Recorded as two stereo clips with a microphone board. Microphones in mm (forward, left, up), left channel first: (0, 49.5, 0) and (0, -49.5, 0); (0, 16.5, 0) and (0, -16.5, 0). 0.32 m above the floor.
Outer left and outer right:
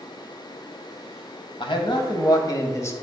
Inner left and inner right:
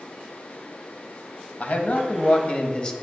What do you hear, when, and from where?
1.6 s a man speaking: 55° left (ahead or behind), 1.4 m; by 2.9 s 25° left (ahead or behind), 1.1 m